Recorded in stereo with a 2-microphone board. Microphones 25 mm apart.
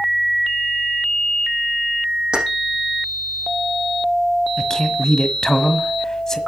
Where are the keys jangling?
50° right (ahead or behind), 5.5 m.